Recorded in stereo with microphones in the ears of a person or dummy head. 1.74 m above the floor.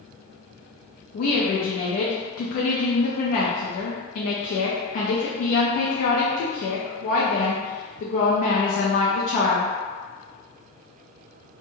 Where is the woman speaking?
55° left (ahead or behind), 0.5 m.